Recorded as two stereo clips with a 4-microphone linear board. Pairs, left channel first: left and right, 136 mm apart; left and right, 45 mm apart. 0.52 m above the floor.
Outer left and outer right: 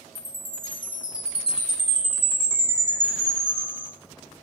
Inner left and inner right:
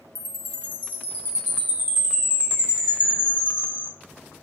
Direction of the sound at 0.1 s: 40° right (ahead or behind).